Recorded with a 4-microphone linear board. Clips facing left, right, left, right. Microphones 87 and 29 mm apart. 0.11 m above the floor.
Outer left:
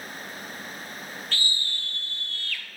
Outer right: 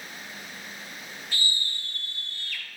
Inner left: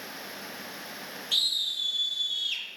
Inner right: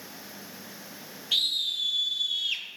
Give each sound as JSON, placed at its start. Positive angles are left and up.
{"t": 1.3, "sound": "a scream", "side_deg": -15, "distance_m": 3.0}